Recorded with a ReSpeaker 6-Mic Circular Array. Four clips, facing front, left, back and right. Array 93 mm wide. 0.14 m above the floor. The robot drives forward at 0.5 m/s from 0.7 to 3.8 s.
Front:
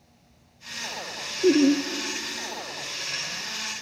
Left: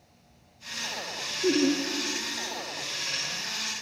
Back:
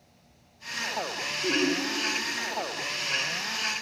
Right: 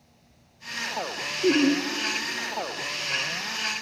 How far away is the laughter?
About 1.8 m.